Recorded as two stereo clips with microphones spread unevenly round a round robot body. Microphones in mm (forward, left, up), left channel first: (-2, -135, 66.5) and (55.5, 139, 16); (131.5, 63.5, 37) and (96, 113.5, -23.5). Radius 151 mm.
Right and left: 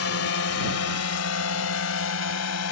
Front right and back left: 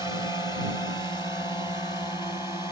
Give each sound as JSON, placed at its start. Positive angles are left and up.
{"t": 0.0, "sound": "a drone", "azimuth_deg": -135}